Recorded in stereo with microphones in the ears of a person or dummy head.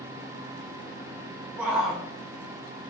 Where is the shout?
5° right (ahead or behind), 0.9 m.